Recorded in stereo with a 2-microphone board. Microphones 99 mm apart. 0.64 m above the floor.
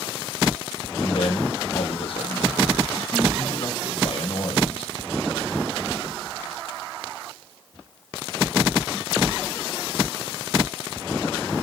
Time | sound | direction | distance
1.0 | a man speaking | 60° left (ahead or behind) | 4.5 m